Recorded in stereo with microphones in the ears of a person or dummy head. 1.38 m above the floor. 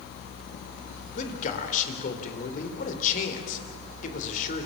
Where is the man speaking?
45° left (ahead or behind), 4 m.